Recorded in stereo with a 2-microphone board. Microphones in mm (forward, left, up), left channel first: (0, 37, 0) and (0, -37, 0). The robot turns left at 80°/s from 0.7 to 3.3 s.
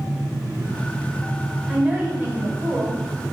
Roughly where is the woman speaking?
Ahead.